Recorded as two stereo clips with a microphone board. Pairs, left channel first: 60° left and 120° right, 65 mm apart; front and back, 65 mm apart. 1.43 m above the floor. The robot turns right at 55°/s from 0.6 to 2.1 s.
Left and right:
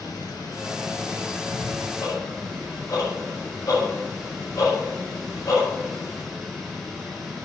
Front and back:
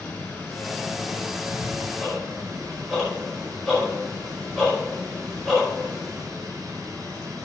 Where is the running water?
65° left, 4.5 m; by 7.5 s 150° left, 4.5 m.